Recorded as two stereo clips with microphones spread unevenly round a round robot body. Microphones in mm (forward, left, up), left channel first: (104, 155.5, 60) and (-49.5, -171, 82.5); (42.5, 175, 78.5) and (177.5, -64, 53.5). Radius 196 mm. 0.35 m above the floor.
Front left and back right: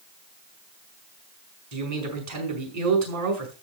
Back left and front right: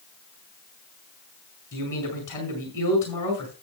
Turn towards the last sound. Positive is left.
turn(degrees=-160)